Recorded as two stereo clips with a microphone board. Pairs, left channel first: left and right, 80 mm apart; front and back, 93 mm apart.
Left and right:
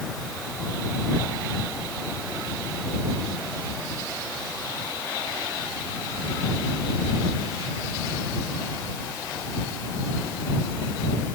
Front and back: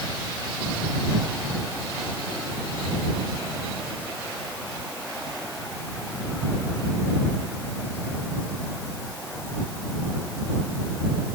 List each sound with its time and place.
Only background noise.